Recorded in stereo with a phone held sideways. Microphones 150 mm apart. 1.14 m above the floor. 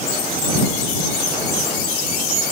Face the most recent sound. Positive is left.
No sound to turn to.